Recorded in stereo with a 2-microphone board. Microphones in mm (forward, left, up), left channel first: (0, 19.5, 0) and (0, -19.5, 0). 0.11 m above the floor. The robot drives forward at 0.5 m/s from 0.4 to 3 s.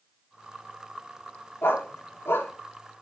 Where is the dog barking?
75° left (ahead or behind), 8.5 m.